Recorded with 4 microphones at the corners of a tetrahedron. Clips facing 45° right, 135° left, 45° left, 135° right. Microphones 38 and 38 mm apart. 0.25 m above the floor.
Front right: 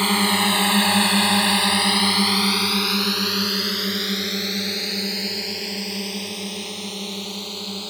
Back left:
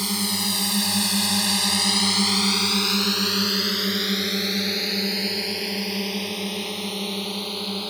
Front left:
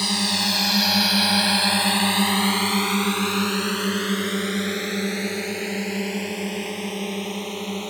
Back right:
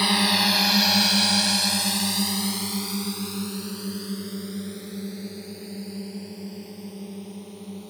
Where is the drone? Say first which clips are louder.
Front right 7 dB, back right 2 dB; 70° right; by 7.9 s 60° left.